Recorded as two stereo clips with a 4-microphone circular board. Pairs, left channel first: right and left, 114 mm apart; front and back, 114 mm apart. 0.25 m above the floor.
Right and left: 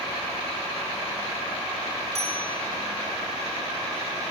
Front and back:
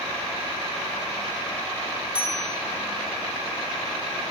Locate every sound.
2.1 s a bicycle bell: 100° left, 10 m